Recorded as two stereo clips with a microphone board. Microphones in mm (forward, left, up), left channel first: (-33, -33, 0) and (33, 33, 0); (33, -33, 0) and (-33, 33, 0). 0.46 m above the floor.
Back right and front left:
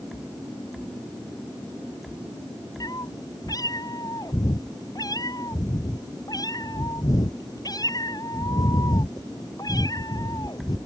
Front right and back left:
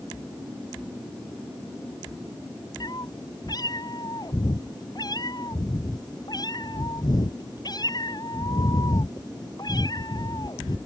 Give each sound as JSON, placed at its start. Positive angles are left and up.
{"t": 2.8, "sound": "a cat meowing", "azimuth_deg": -90}